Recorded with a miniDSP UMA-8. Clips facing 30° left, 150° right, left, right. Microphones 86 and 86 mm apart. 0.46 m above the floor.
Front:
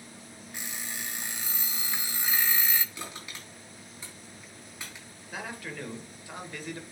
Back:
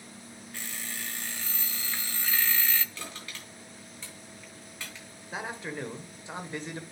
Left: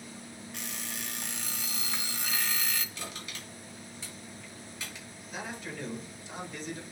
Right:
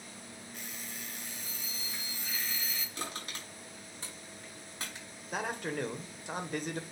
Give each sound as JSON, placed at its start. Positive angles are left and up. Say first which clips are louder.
{"t": 0.5, "sound": "an alarm clock", "louder": "front 1 dB, left 5 dB", "azimuth_deg": 100, "distance_m": 0.6}
{"t": 3.0, "sound": "crushing", "louder": "front 1 dB, right 1 dB", "azimuth_deg": -45, "distance_m": 3.5}
{"t": 5.3, "sound": "a man speaking", "louder": "back 2 dB, right 5 dB", "azimuth_deg": -90, "distance_m": 1.5}